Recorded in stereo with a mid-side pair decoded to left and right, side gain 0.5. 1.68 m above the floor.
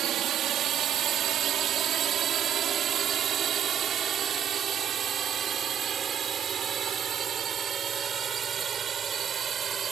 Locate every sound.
0.0 s a drone: 65° right; by 9.9 s 45° right